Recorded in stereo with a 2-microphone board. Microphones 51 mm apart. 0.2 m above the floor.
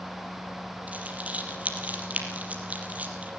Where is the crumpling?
30° right (ahead or behind), 4.5 m.